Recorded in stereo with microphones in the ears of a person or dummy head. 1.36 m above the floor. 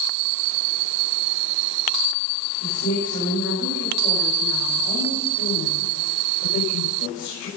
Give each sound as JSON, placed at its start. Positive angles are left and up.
{"t": 2.6, "sound": "a woman speaking", "side_deg": 85, "distance_m": 6.5}